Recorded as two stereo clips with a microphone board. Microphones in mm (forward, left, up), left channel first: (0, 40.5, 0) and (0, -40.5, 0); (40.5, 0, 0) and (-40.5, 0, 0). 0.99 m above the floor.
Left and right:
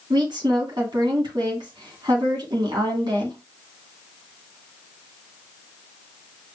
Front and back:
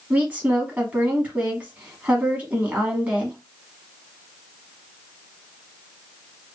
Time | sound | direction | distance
0.1 | a woman speaking | 110° right | 2.5 m